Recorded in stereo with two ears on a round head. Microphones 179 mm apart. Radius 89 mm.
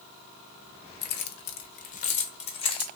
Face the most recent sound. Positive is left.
turn(degrees=25)  # may be behind; listen again after turning